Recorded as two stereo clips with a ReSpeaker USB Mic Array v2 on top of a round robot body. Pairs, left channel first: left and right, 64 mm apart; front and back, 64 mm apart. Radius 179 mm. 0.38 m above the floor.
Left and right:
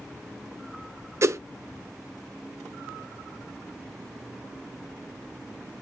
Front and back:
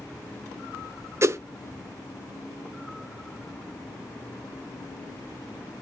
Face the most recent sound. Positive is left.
turn(degrees=-135)